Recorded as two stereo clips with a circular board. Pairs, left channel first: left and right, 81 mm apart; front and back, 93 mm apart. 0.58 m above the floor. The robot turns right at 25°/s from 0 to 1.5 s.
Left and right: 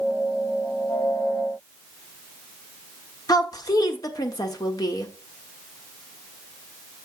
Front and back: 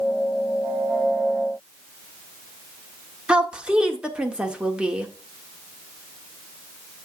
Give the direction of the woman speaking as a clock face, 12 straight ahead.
9 o'clock.